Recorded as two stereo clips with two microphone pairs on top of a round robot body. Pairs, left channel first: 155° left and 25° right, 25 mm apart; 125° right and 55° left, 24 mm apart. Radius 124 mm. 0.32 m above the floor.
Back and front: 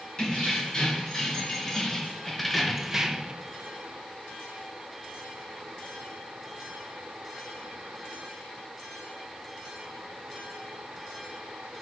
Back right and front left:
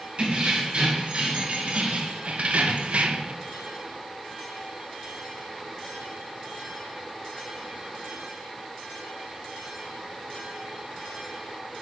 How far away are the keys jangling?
About 3 m.